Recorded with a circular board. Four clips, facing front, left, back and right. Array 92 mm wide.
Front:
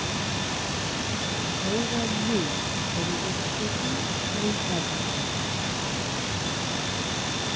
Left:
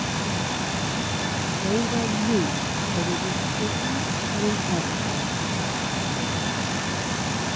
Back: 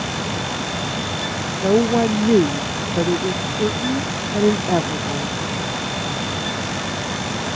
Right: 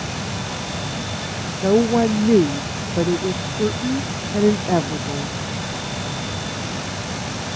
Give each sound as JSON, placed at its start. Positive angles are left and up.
{"t": 1.6, "sound": "a woman speaking", "azimuth_deg": -135}